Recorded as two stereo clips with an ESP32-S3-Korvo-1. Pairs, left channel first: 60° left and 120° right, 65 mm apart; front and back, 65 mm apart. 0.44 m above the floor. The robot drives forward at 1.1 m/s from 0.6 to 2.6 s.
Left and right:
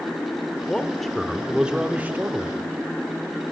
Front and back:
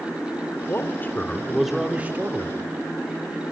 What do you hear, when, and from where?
0.7 s a man speaking: 15° right, 1.5 m; by 2.7 s 165° right, 1.5 m